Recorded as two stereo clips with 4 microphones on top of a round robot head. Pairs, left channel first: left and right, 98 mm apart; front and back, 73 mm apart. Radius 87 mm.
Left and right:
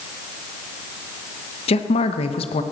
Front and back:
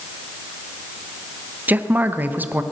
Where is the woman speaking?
115° left, 1.0 m.